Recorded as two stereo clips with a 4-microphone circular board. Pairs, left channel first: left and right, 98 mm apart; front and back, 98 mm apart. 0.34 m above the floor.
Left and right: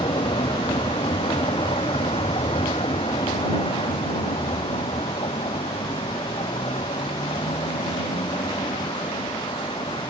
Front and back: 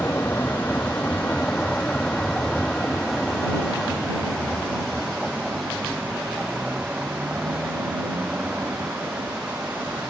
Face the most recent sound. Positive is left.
turn(degrees=105)